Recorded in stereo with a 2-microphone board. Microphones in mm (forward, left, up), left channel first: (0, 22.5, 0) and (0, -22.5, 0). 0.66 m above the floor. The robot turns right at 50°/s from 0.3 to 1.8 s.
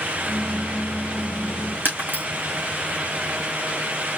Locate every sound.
1.9 s breaking glass: 45° right (ahead or behind), 4 m